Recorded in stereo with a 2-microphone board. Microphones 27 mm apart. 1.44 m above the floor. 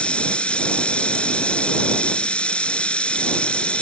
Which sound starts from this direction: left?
Running water, at 0.0 s.